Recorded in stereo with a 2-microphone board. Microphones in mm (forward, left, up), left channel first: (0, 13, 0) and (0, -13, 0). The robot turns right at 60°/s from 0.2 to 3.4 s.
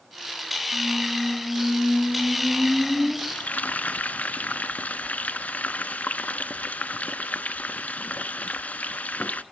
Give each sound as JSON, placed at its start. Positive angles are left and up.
{"t": 0.7, "sound": "a squeak", "azimuth_deg": -20, "distance_m": 3.0}
{"t": 3.3, "sound": "frying", "side_deg": 80, "distance_m": 0.9}